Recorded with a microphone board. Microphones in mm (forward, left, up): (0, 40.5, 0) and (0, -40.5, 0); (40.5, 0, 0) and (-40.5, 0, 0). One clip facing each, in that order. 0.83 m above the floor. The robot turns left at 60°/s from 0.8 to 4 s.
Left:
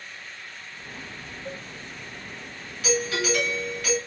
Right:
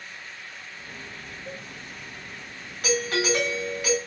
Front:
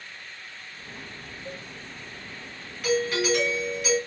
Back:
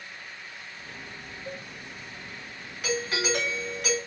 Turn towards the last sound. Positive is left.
turn(degrees=-175)